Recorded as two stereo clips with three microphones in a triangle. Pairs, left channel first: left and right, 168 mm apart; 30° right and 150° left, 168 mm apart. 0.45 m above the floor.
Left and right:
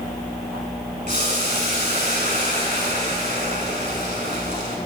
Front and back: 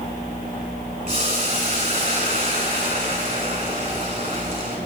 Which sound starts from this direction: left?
Boiling, at 1.1 s.